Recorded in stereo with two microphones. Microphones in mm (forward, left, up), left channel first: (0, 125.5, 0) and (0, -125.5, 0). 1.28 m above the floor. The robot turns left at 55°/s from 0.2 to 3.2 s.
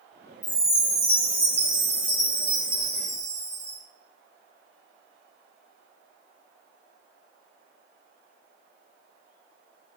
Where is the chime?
70° left, 2 m; by 3.8 s 80° right, 2 m.